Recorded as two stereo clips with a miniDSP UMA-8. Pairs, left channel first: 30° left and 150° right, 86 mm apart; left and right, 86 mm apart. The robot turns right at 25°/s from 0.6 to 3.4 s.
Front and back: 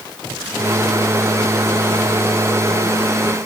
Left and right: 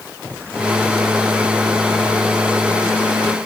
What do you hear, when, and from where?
Only background noise.